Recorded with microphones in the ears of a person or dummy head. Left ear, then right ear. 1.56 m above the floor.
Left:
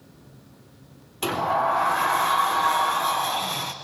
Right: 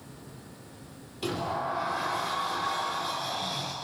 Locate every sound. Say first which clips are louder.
1.2 s a sliding door: left 9 dB; 50° left (ahead or behind), 0.9 m